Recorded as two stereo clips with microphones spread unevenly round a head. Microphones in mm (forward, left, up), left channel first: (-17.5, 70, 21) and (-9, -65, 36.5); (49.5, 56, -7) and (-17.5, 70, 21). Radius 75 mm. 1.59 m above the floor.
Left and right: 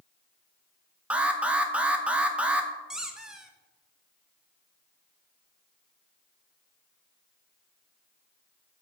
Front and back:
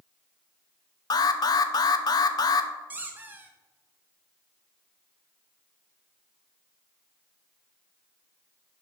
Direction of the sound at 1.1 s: 5° right.